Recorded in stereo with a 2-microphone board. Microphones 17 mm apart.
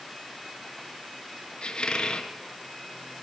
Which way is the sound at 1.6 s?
65° left (ahead or behind).